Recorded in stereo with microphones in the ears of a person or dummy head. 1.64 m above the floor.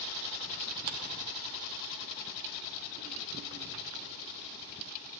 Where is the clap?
45° right (ahead or behind), 0.8 m.